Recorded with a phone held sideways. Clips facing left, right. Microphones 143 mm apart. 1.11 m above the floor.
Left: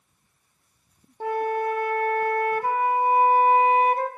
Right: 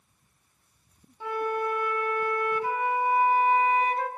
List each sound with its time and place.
1.2 s a flute: 50° left (ahead or behind), 1.9 m